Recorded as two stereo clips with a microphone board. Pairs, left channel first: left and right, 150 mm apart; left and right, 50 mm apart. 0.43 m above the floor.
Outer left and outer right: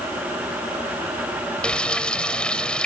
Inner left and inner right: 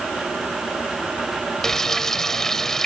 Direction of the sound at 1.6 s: 5° left (ahead or behind).